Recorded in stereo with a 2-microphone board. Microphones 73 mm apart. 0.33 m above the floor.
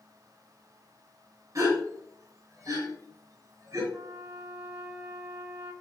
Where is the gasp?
50° right (ahead or behind), 5.5 m.